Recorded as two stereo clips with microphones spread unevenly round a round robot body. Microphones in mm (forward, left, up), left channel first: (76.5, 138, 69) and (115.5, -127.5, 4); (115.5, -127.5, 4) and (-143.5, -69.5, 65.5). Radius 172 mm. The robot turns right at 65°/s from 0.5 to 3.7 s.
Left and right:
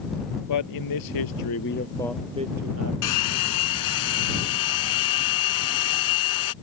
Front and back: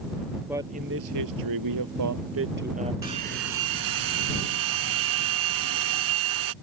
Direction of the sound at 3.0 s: 90° left.